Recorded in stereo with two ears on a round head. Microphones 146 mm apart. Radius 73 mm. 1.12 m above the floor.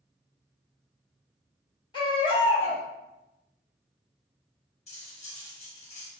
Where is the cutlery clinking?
45° left (ahead or behind), 1.0 m.